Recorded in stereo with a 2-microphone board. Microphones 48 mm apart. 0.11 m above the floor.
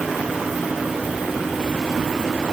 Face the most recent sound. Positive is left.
No sound to turn to.